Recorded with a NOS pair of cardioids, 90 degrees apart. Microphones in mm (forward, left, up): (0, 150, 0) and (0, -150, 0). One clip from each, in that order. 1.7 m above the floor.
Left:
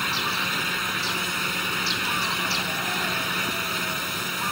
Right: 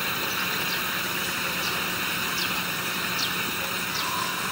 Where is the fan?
20° left.